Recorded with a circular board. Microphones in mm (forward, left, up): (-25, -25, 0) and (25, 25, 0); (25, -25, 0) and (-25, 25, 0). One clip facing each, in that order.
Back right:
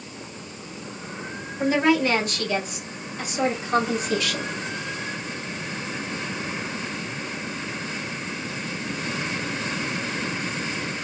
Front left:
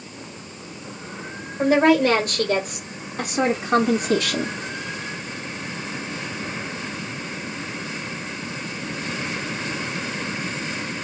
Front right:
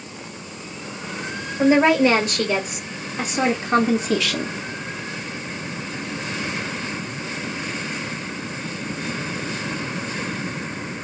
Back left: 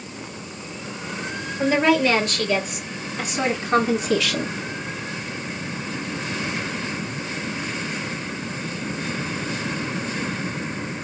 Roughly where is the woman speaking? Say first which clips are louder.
Front left 4 dB, front right 3 dB; ahead.